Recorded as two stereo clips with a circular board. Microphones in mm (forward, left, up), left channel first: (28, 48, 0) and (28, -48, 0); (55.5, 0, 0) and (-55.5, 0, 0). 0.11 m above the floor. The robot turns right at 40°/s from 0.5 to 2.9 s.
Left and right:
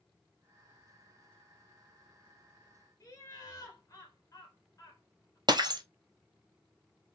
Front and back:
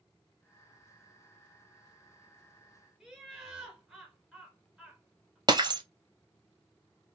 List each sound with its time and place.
3.0 s laughter: 95° left, 1.4 m
5.5 s breaking glass: 130° right, 0.7 m